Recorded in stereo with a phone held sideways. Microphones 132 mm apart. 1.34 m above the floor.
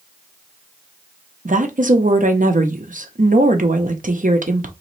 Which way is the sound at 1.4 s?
70° right (ahead or behind).